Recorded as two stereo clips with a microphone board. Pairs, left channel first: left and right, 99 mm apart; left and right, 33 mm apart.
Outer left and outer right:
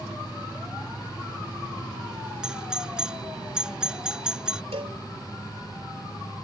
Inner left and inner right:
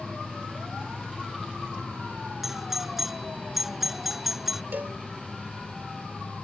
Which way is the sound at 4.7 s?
85° right.